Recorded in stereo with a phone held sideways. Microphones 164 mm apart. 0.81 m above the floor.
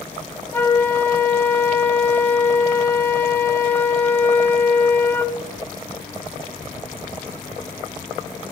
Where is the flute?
15° left (ahead or behind), 1.2 m.